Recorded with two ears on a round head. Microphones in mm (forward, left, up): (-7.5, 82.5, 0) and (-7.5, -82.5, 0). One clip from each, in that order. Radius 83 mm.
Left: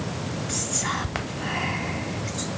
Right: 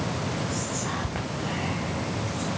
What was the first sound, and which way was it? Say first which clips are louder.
Whispering: left 3 dB; 50° left (ahead or behind).